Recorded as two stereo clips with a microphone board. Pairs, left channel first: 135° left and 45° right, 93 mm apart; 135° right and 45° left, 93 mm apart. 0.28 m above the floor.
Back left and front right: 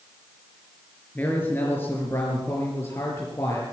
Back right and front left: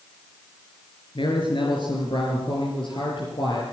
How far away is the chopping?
I don't hear chopping.